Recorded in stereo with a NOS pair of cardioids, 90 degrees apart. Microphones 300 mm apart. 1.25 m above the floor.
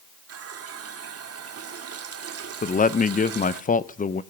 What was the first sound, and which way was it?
A running tap, 45° right.